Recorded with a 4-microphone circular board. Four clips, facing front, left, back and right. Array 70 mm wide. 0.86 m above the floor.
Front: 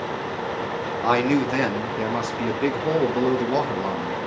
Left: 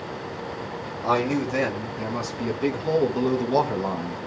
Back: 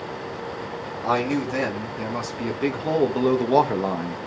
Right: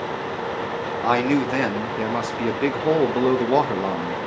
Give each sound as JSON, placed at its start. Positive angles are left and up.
{"t": 1.0, "sound": "a man speaking", "azimuth_deg": -55, "distance_m": 1.9}